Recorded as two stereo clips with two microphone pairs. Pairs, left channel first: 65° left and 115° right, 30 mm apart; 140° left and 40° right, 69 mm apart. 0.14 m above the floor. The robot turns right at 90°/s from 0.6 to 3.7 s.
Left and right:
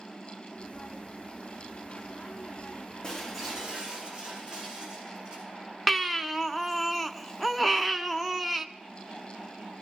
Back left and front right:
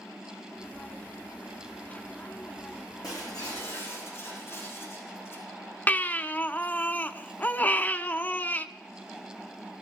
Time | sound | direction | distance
3.0 | breaking glass | 130° left | 5.5 m
5.9 | a baby crying | 160° left | 0.6 m